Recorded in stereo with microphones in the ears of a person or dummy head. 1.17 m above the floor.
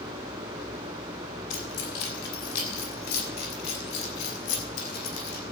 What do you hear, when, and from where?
1.5 s keys jangling: 85° left, 4.5 m; by 5.4 s 80° left, 7 m